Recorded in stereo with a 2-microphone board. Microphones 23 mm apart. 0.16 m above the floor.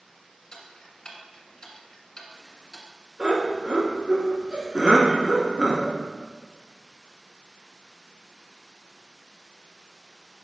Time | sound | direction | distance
0.5 | ticking | 40° left (ahead or behind) | 1.7 m
3.2 | laughter | 30° right (ahead or behind) | 2 m